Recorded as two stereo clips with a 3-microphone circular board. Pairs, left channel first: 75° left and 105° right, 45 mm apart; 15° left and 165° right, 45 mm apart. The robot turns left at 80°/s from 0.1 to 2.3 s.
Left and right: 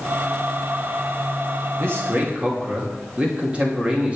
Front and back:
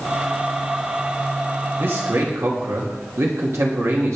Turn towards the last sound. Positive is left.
turn(degrees=-170)